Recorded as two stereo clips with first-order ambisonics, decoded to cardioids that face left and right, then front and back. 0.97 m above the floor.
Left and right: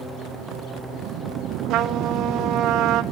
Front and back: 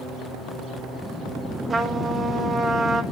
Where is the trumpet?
110° right, 1.4 m.